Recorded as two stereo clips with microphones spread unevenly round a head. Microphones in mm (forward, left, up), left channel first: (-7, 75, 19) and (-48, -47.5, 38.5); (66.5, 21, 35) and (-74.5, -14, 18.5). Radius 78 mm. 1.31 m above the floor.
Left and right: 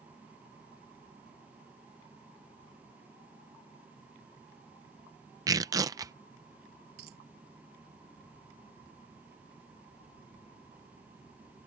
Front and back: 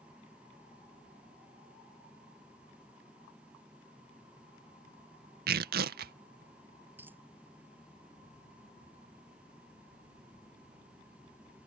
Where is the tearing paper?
175° right.